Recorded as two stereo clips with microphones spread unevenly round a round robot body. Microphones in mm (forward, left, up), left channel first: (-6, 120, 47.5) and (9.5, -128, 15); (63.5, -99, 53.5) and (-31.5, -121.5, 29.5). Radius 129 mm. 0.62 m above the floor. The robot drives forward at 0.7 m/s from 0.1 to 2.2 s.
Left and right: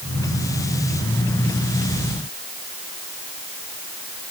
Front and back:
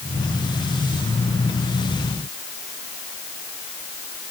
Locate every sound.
Only background noise.